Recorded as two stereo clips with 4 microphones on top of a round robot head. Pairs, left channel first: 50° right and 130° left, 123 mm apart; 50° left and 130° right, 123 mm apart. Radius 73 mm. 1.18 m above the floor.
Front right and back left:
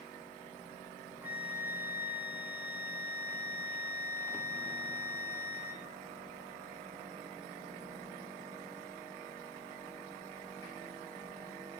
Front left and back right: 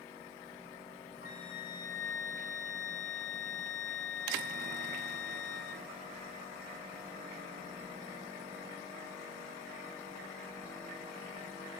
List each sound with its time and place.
1.2 s a flute: 50° left, 2 m